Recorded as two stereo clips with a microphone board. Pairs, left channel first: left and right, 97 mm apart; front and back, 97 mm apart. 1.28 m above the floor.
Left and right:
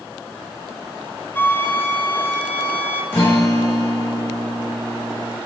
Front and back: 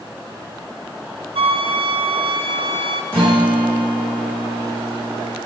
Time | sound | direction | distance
1.4 | a flute | 160° left | 0.6 m
3.1 | a guitar | 155° left | 2.5 m